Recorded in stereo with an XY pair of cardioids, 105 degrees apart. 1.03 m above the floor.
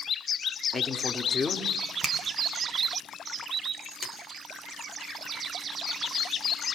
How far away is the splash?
About 4 m.